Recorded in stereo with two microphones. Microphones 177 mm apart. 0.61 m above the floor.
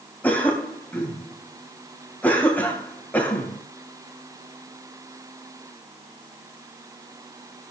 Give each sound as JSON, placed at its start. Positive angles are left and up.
{"t": 0.2, "sound": "a cough", "side_deg": 10, "distance_m": 3.0}